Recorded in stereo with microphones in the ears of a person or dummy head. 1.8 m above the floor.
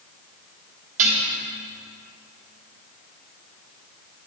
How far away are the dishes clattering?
About 3 m.